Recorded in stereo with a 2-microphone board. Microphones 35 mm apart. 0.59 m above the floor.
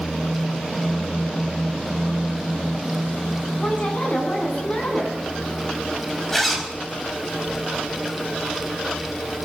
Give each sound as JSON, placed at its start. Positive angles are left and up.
{"t": 3.6, "sound": "a woman speaking", "side_deg": 40, "distance_m": 6.5}
{"t": 6.3, "sound": "a zipper", "side_deg": 5, "distance_m": 4.0}